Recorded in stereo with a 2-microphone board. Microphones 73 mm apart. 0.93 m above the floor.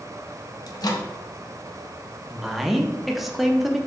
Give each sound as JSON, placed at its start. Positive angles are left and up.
{"t": 0.7, "sound": "a microwave", "side_deg": 60, "distance_m": 0.5}
{"t": 2.3, "sound": "a woman speaking", "side_deg": 0, "distance_m": 0.5}